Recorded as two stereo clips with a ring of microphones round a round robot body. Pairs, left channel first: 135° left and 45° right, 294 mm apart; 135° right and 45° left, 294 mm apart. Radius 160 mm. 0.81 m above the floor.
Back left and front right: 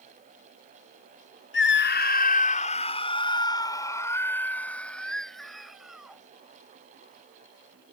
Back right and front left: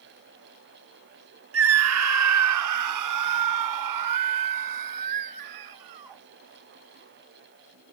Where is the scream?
85° left; by 6.2 s 45° left.